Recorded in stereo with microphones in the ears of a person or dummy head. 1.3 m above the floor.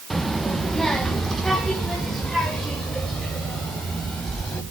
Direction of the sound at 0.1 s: Centre (ahead or behind).